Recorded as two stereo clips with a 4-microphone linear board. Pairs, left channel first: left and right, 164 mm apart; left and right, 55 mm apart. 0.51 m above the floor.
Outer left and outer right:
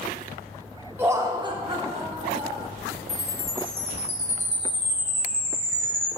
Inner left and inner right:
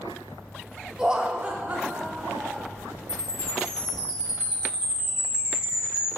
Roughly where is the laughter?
Centre.